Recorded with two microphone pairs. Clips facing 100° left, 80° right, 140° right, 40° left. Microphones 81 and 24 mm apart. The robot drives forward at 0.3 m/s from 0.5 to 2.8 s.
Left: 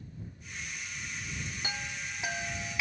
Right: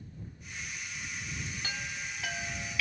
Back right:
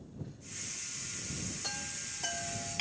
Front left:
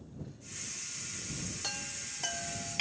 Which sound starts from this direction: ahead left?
A chime, at 1.6 s.